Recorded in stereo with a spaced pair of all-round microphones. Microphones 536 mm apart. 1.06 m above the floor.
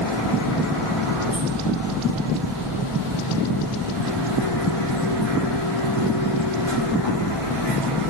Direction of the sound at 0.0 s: 75° left (ahead or behind).